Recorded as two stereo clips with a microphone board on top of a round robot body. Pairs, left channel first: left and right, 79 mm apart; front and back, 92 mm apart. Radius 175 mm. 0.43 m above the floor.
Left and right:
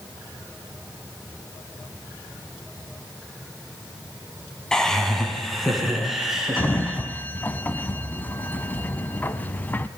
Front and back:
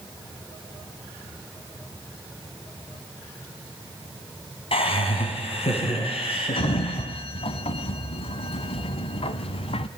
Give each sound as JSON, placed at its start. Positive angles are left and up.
{"t": 4.7, "sound": "laughter", "azimuth_deg": 10, "distance_m": 4.5}
{"t": 6.6, "sound": "a sliding door", "azimuth_deg": 20, "distance_m": 0.9}